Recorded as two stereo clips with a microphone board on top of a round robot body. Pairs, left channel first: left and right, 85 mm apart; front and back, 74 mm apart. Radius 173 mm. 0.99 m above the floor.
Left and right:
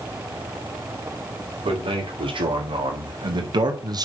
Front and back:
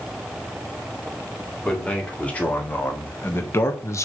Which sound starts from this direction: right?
A man speaking, at 1.6 s.